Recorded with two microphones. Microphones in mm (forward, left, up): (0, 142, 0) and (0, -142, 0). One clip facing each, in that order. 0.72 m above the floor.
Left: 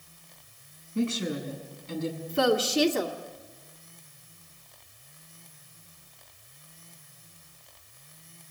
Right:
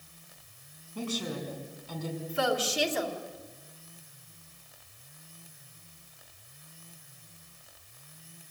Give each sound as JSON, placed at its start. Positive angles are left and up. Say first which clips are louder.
{"t": 0.9, "sound": "a woman speaking", "louder": "left 6 dB", "side_deg": 25, "distance_m": 5.5}
{"t": 2.3, "sound": "a woman speaking", "louder": "left 6 dB", "side_deg": 50, "distance_m": 2.0}